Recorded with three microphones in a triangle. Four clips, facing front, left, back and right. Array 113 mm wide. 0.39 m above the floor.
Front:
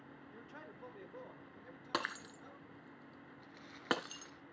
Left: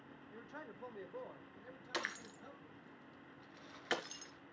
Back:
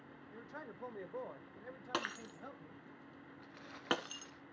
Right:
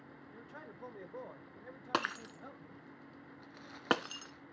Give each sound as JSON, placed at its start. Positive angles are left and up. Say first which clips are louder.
{"t": 0.3, "sound": "a man speaking", "louder": "left 1 dB, back 5 dB", "azimuth_deg": 145, "distance_m": 0.9}
{"t": 1.9, "sound": "breaking glass", "louder": "right 8 dB, front 1 dB", "azimuth_deg": -85, "distance_m": 1.0}
{"t": 3.4, "sound": "crumpling", "louder": "right 4 dB, back 2 dB", "azimuth_deg": -135, "distance_m": 1.7}